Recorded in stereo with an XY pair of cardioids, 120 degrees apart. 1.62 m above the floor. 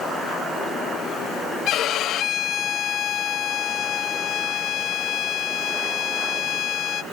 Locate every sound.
1.7 s a violin: 60° left, 0.7 m